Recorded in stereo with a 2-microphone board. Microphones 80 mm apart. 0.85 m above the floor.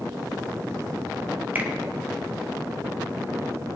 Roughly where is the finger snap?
Right.